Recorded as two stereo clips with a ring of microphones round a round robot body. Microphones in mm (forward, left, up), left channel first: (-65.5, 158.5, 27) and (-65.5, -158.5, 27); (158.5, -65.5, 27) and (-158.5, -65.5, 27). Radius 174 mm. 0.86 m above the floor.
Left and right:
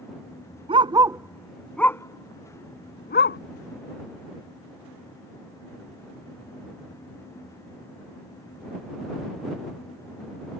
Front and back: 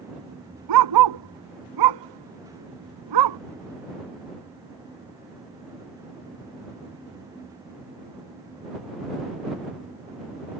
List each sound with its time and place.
0.7 s a dog barking: 165° right; by 3.4 s 145° left